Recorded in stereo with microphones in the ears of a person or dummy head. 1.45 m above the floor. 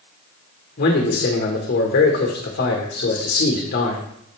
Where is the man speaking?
55° left (ahead or behind), 1.6 m.